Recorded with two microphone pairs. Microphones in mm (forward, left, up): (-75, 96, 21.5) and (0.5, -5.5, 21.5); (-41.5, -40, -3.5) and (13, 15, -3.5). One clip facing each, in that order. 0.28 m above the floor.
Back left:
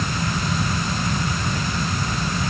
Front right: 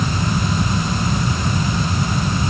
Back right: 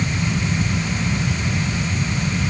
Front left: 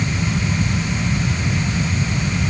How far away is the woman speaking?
I don't hear a woman speaking.